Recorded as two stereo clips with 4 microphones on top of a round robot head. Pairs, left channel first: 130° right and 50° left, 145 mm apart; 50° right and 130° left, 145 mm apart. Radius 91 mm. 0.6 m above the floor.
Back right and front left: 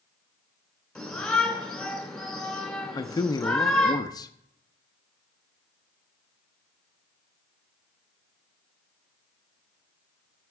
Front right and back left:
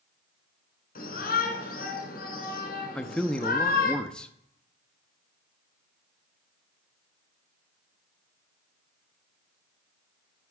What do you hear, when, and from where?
0.9 s a shout: 45° right, 3 m
3.0 s a man speaking: 125° right, 0.6 m